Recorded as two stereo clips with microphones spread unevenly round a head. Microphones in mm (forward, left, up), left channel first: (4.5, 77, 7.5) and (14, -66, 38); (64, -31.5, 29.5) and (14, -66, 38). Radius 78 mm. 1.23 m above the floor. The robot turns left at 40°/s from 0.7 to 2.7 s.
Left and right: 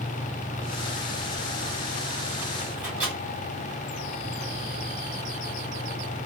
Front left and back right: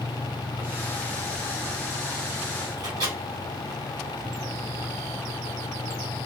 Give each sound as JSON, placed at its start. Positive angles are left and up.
{"t": 2.8, "sound": "a microwave", "azimuth_deg": -165, "distance_m": 1.0}